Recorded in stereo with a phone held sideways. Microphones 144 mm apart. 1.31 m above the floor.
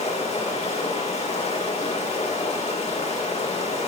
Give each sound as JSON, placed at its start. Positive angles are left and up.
{"t": 0.0, "sound": "running water", "side_deg": 50, "distance_m": 1.5}